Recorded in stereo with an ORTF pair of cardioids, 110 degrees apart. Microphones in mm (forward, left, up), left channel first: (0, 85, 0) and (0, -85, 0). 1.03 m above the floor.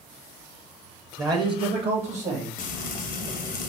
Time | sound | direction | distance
1.2 | a man speaking | 20° right | 0.8 m
2.6 | frying | 50° left | 0.7 m